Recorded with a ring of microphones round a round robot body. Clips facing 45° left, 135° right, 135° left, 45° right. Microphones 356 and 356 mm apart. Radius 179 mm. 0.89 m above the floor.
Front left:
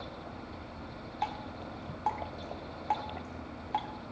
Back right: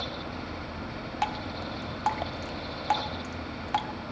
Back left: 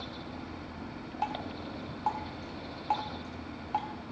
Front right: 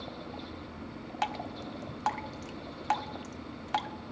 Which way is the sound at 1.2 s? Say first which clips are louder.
Back right 4 dB, even; 85° right.